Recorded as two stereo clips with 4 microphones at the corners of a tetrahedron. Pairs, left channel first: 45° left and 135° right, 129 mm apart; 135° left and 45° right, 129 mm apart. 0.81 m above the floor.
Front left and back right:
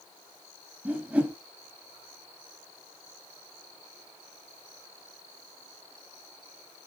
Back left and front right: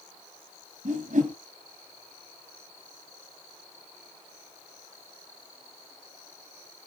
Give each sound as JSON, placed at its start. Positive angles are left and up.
{"t": 0.8, "sound": "a whoosh", "azimuth_deg": -55, "distance_m": 1.7}